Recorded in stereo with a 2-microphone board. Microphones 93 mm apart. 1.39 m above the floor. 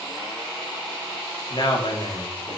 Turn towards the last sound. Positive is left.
turn(degrees=70)  # may be behind; listen again after turning